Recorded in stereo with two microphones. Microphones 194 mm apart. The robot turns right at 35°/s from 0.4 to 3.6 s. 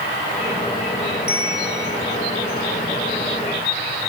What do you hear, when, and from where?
1.3 s a bell: 55° left (ahead or behind), 6.5 m; by 2.0 s 80° left, 6.5 m